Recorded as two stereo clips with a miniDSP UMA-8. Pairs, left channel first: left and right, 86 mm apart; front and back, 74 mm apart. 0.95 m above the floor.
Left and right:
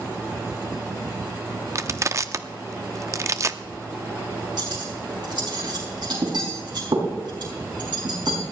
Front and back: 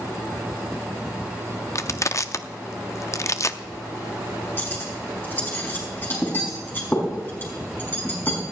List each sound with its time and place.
1.8 s crushing: 40° right, 0.6 m
4.6 s cutlery clinking: 60° right, 5 m